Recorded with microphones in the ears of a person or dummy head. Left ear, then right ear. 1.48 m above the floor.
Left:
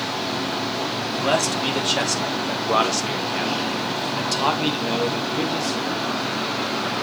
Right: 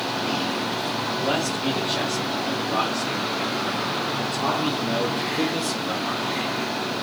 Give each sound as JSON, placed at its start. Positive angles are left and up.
{"t": 1.2, "sound": "a man speaking", "side_deg": 75, "distance_m": 3.0}